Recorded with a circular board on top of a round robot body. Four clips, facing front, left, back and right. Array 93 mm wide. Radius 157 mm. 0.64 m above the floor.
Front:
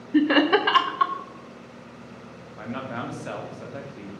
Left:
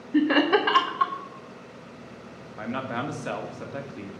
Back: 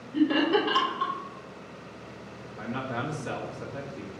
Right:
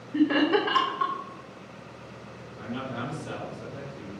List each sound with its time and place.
0.1 s laughter: 30° left, 0.8 m
2.6 s a man speaking: 70° left, 1.8 m